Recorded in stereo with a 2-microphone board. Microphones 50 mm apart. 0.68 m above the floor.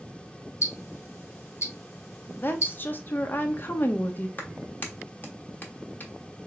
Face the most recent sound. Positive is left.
turn(degrees=40)  # may be behind; listen again after turning